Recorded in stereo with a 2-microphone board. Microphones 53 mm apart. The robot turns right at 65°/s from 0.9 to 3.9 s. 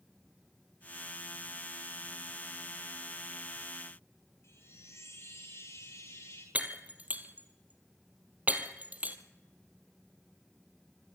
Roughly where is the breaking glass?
Right.